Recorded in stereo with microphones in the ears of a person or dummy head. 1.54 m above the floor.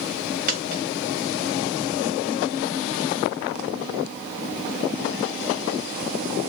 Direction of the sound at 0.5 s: 45° right (ahead or behind).